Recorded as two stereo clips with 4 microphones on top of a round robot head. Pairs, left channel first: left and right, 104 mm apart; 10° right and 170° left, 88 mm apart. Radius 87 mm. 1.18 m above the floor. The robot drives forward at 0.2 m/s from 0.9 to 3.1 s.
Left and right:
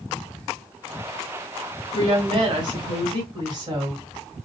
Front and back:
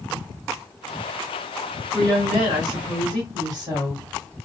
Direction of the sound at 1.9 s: 135° right.